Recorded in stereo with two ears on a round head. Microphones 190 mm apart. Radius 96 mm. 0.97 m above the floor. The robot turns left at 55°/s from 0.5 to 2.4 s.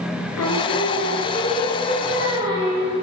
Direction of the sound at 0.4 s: 80° left.